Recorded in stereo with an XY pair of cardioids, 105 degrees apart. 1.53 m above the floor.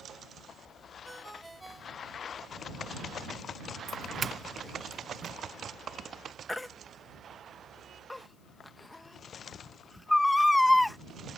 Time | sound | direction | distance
1.1 | a ringtone | 10° right | ?
3.9 | a doorbell | 35° right | ?
6.5 | a baby crying | 10° left | ?